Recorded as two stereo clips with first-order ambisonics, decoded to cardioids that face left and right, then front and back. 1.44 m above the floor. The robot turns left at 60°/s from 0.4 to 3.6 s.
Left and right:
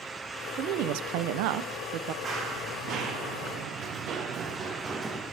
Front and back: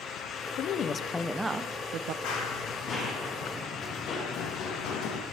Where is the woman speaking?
45° right, 0.7 m; by 2.1 s 140° right, 0.7 m.